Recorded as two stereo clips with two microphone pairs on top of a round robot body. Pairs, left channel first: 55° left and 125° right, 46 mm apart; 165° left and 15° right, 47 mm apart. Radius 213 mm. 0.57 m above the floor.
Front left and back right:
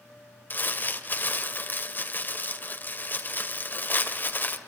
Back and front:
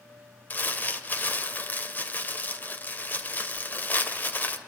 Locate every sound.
0.5 s crumpling: 110° left, 2 m